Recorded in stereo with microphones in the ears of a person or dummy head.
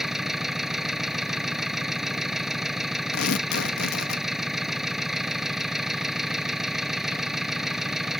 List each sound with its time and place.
0.0 s an engine running: 5° right (ahead or behind)
3.1 s tearing paper: 75° left (ahead or behind)